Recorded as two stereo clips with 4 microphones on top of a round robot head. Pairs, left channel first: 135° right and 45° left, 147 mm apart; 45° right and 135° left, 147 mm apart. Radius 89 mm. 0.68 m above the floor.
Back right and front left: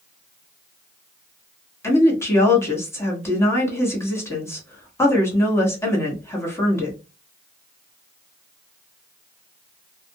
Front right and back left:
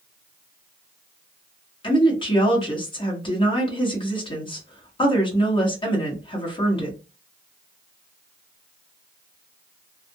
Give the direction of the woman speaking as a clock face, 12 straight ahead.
2 o'clock.